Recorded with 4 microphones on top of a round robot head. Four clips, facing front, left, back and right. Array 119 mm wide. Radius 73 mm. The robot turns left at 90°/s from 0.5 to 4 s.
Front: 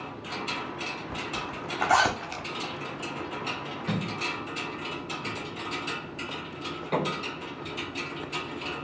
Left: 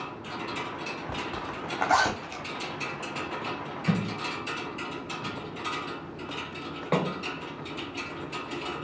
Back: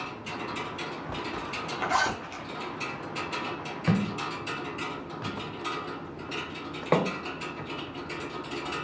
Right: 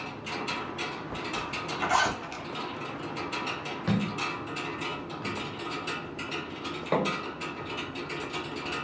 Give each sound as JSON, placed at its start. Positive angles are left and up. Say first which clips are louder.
{"t": 1.1, "sound": "a zipper", "louder": "even, even", "azimuth_deg": 115, "distance_m": 0.8}
{"t": 3.9, "sound": "a thud", "louder": "even, back 4 dB", "azimuth_deg": -165, "distance_m": 0.9}